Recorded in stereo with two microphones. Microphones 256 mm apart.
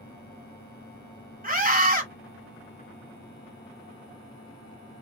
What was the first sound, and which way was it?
A scream, 35° right (ahead or behind).